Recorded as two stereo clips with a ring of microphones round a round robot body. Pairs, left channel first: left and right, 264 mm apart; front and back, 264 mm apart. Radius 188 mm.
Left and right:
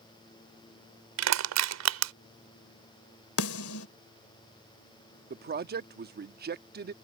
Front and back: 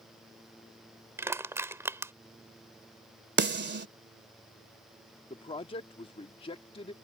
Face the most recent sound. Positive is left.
turn(degrees=-60)